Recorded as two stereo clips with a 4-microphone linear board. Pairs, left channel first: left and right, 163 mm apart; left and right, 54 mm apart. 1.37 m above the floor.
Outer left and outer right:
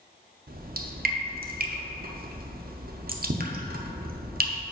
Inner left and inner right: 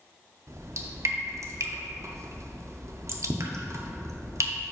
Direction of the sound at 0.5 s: 65° right (ahead or behind).